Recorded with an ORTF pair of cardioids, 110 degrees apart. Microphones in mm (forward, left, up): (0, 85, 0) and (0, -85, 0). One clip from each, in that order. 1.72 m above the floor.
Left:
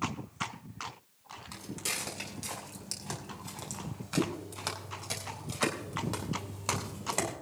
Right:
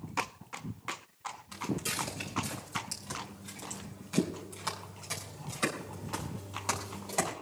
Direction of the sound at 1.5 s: 45° left.